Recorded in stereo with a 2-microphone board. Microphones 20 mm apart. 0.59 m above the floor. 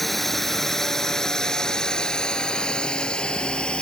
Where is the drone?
10° left (ahead or behind); by 3.8 s 70° left (ahead or behind).